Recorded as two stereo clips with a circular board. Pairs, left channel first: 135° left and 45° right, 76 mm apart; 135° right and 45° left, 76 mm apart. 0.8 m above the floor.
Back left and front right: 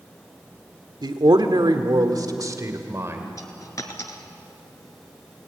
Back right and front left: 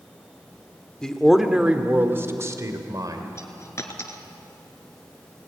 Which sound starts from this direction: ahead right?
A man speaking, at 1.0 s.